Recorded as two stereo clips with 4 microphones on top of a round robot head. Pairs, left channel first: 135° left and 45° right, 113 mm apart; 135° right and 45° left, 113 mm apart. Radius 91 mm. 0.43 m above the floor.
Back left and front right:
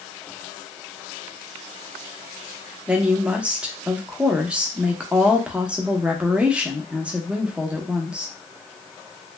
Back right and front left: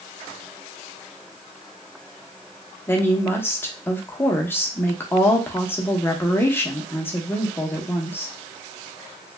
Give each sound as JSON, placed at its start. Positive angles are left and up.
{"t": 2.9, "sound": "a woman speaking", "azimuth_deg": -105, "distance_m": 0.7}